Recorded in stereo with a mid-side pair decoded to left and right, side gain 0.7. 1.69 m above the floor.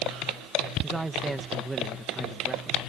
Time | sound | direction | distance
0.8 | a man speaking | 15° right | ?